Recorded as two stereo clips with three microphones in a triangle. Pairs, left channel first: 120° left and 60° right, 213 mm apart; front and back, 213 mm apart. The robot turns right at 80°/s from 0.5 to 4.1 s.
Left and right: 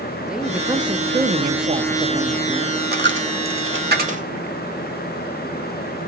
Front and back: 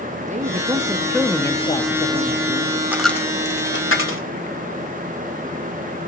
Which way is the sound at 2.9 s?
100° right.